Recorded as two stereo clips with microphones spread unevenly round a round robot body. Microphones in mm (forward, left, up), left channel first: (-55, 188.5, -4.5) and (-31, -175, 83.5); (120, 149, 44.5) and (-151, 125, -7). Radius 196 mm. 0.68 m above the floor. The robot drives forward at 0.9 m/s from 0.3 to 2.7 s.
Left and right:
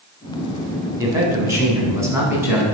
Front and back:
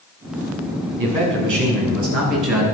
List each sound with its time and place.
1.0 s a man speaking: 170° right, 6 m